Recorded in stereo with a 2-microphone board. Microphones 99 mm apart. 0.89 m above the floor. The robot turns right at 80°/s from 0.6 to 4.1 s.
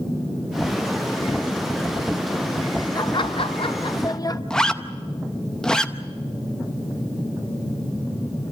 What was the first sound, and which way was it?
Laughter, 45° left.